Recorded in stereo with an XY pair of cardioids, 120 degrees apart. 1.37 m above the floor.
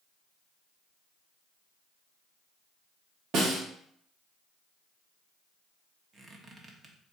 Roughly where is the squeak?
Ahead right.